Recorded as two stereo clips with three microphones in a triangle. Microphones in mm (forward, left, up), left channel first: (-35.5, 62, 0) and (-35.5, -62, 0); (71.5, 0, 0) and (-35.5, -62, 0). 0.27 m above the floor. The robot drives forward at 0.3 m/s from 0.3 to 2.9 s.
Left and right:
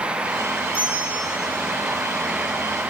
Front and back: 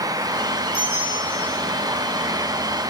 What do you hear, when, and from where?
0.7 s a bell: 60° left, 5 m